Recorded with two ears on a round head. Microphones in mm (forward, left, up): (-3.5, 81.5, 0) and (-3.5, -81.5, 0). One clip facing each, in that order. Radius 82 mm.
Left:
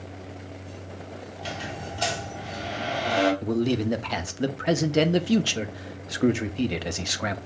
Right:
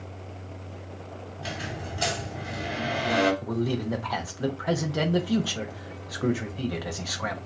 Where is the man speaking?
25° left (ahead or behind), 0.6 m.